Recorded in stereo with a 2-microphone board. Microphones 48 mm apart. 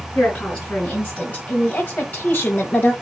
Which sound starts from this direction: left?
A woman speaking, at 0.1 s.